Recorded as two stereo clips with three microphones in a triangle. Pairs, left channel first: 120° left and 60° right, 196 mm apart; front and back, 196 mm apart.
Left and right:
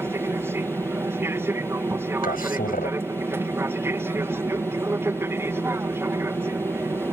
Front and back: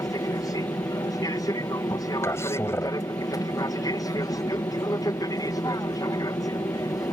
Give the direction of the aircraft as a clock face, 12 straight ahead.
12 o'clock.